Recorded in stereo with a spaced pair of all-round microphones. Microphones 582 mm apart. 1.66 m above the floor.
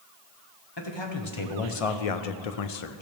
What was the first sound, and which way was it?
A man speaking, 45° left (ahead or behind).